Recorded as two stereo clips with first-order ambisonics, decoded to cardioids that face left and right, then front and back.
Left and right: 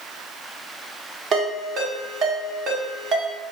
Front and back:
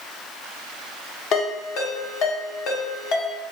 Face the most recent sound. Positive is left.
turn(degrees=-35)